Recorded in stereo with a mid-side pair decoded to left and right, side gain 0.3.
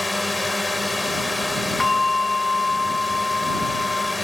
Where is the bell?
40° left.